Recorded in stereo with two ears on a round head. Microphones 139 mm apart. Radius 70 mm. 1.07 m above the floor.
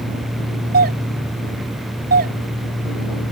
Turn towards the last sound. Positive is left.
turn(degrees=-60)  # may be behind; listen again after turning